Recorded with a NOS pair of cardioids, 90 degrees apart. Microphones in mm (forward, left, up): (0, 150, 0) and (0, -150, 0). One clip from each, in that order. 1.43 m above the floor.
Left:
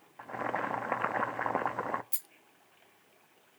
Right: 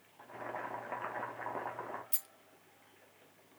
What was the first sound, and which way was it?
Boiling, 55° left.